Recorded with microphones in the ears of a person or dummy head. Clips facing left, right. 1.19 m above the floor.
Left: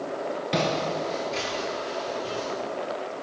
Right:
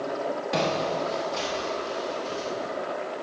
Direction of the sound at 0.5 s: 30° left (ahead or behind).